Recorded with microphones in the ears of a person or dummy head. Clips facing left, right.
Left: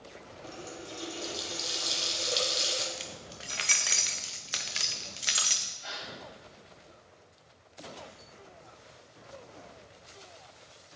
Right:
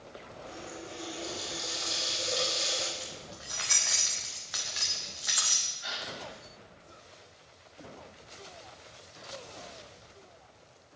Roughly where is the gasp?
Centre.